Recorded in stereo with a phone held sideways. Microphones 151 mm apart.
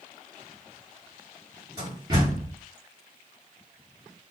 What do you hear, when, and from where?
1.8 s a door slam: 25° right (ahead or behind), 3 m